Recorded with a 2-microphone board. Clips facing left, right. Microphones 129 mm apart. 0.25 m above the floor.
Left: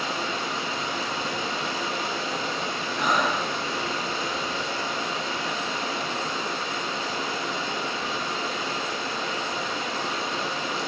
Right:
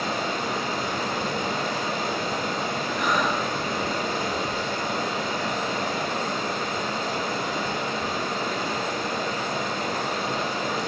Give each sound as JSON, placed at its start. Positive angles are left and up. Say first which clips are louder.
{"t": 0.0, "sound": "running water", "louder": "right 2 dB", "side_deg": -55, "distance_m": 0.8}
{"t": 3.0, "sound": "breathing", "louder": "left 1 dB", "side_deg": 25, "distance_m": 1.2}